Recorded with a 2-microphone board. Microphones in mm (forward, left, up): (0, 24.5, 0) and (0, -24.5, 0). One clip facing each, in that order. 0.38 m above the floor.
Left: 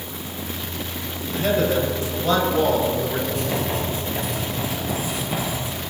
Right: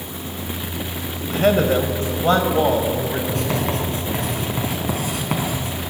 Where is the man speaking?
50° right (ahead or behind), 1.8 m; by 3.2 s 20° right (ahead or behind), 2.5 m.